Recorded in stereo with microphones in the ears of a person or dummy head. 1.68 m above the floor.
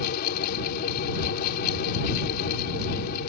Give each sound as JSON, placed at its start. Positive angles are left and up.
{"t": 0.0, "sound": "a fan", "side_deg": 60}